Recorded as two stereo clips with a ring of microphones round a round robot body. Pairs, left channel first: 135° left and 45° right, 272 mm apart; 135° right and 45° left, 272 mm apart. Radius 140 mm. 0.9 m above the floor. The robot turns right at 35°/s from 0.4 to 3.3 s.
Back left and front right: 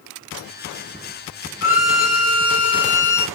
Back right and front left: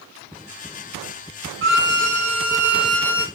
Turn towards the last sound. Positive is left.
turn(degrees=150)